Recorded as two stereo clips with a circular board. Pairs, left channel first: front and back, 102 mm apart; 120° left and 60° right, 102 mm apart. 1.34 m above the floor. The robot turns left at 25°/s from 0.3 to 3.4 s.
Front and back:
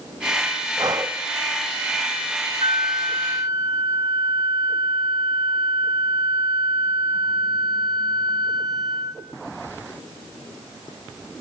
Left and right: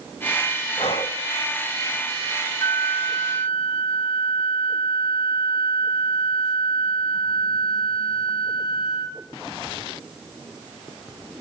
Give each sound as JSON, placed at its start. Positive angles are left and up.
{"t": 0.8, "sound": "breathing", "azimuth_deg": 135, "distance_m": 1.4}
{"t": 2.6, "sound": "a flute", "azimuth_deg": 145, "distance_m": 3.0}